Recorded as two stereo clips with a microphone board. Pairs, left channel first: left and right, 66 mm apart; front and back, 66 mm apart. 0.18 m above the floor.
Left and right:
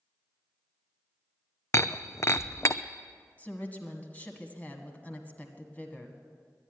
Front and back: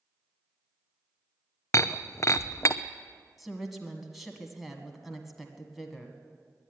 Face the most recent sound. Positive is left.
turn(degrees=95)